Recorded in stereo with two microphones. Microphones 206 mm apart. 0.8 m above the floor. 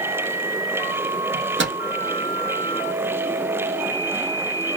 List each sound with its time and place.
1.3 s a microwave: 65° right (ahead or behind), 0.8 m